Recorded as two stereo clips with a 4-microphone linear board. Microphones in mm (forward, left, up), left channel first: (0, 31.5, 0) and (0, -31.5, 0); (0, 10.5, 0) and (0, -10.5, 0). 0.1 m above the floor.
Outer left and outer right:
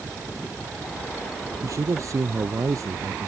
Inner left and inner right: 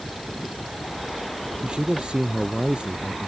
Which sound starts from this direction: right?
A man speaking, at 1.6 s.